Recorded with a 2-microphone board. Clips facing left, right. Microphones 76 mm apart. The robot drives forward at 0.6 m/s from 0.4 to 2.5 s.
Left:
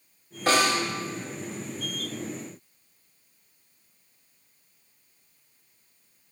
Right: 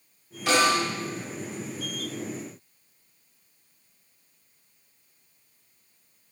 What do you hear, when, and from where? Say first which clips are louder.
0.5 s a snare drum: right 1 dB; 40° left (ahead or behind), 1.3 m; by 0.8 s 45° left (ahead or behind), 1.2 m